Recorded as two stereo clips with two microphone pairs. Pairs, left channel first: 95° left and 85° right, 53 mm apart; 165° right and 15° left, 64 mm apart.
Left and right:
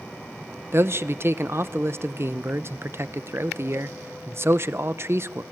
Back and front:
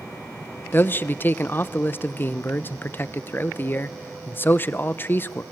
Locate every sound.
0.7 s a man speaking: 115° right, 0.8 m